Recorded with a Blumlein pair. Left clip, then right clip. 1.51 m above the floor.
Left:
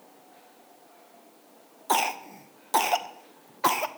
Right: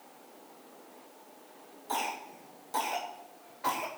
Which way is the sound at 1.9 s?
55° left.